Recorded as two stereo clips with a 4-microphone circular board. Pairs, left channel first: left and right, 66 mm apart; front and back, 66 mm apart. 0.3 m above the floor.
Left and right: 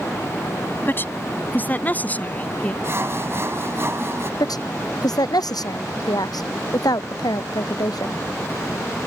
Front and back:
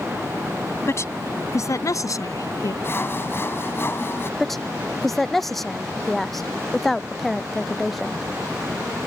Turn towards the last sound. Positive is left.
turn(degrees=85)